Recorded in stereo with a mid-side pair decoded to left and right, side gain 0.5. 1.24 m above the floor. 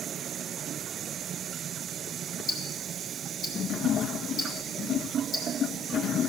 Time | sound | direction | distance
2.5 | ticking | 45° left | 4 m